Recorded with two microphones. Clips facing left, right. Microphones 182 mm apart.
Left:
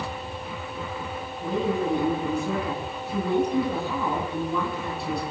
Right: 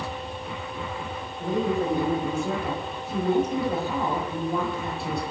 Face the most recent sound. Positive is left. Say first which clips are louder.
# right 1 dB
turn(degrees=-45)  # may be behind; listen again after turning